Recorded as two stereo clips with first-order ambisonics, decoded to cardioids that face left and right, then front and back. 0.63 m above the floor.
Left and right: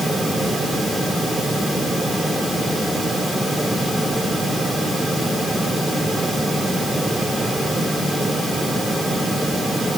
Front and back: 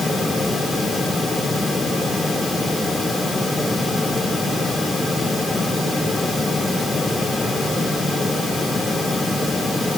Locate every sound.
Only background noise.